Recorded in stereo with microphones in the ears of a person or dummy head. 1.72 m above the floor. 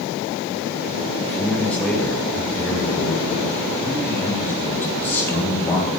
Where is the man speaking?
Centre (ahead or behind), 9 m; by 5.9 s 10° left (ahead or behind), 11.5 m.